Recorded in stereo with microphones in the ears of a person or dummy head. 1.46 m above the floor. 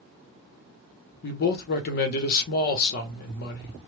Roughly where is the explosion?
No explosion in this recording.